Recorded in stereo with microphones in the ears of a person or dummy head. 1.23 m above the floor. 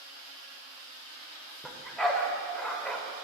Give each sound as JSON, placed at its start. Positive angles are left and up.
{"t": 1.6, "sound": "a dog barking", "side_deg": 0, "distance_m": 1.2}